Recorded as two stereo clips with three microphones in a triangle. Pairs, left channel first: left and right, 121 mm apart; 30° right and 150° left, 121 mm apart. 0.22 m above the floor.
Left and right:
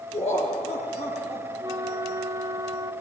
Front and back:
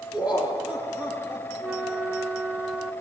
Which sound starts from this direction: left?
Laughter, at 0.1 s.